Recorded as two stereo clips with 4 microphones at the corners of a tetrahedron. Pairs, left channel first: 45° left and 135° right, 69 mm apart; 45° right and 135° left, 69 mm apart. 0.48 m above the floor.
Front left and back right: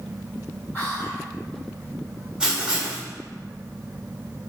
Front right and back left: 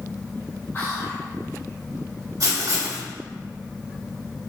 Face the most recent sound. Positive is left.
turn(degrees=150)